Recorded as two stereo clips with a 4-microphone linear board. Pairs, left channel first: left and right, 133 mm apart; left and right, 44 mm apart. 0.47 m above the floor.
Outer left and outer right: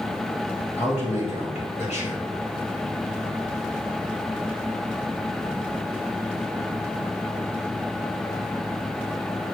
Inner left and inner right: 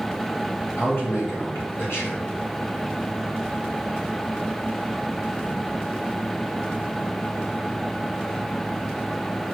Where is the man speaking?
60° left (ahead or behind), 2.5 m.